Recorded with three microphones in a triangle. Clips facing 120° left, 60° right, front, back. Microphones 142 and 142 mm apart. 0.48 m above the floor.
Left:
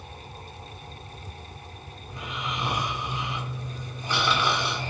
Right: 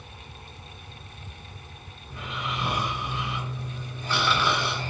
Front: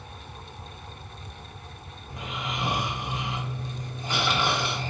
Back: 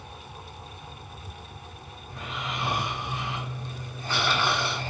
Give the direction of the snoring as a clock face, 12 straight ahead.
10 o'clock.